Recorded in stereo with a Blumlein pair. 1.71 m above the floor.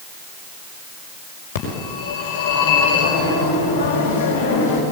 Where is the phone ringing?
55° left, 5.5 m.